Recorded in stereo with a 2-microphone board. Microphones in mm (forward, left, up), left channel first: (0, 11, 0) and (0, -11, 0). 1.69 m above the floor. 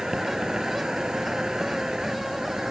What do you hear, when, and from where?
0.0 s an insect: 30° right (ahead or behind)